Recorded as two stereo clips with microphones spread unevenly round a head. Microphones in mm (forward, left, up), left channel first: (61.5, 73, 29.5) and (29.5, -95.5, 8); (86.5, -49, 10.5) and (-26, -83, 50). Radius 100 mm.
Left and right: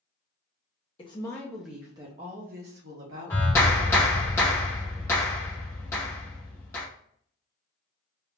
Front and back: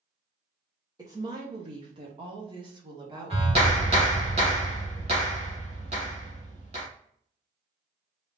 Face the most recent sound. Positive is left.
turn(degrees=155)